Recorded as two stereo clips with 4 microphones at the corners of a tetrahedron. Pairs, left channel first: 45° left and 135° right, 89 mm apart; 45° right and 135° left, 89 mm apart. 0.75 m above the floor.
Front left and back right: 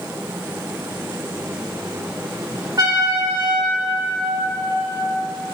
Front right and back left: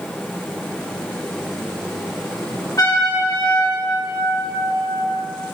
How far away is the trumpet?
About 3 m.